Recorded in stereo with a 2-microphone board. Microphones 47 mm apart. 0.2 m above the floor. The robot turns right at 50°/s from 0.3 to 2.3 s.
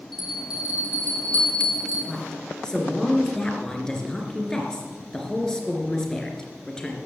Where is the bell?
175° right, 6 m; by 2.0 s 90° right, 6 m.